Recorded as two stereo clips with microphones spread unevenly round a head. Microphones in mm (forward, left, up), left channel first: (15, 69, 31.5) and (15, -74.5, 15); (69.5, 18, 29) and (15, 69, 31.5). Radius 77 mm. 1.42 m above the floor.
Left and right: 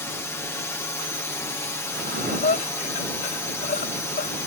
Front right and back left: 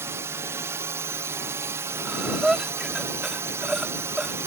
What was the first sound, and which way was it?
A drone, 160° left.